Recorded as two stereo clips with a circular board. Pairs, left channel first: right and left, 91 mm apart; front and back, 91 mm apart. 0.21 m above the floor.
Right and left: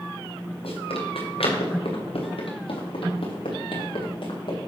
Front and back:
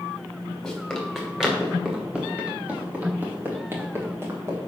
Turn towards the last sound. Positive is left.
turn(degrees=-120)